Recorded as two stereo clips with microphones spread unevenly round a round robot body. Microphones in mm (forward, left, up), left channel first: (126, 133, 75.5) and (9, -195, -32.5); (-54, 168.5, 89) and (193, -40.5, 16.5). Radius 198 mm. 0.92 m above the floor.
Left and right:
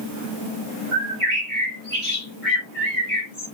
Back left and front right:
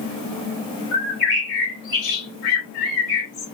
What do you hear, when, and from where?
0.9 s a bird: 165° left, 3 m